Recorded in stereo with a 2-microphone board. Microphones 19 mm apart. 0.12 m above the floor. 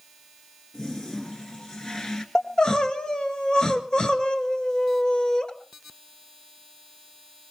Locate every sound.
0.7 s a toilet flushing: 35° left (ahead or behind), 1.8 m
2.4 s crying: 45° left (ahead or behind), 1.6 m